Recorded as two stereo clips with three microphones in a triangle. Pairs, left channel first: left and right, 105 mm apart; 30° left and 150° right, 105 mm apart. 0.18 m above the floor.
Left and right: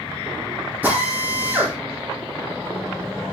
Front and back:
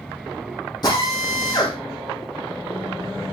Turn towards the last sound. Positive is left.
turn(degrees=-15)